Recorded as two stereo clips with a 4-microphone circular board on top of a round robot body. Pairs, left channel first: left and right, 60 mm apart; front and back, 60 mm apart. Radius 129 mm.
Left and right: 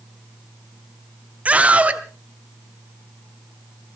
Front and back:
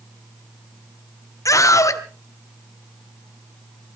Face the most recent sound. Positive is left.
turn(degrees=-25)